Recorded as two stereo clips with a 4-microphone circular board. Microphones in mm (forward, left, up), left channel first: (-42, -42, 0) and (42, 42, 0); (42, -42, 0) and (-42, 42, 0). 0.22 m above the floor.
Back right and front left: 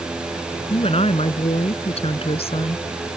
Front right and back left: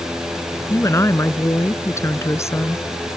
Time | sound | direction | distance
0.7 | a woman speaking | 110° right | ?